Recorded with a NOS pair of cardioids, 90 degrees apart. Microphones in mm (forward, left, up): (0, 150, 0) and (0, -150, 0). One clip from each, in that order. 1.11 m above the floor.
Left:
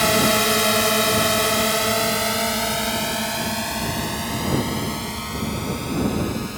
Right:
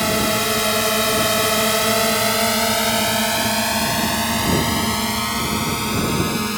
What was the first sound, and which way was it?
A drone, 15° left.